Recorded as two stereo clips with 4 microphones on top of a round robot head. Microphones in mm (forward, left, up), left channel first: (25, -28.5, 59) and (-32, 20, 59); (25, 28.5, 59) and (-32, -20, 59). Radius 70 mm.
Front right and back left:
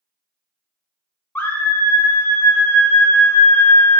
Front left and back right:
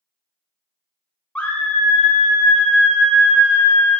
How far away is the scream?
About 0.9 m.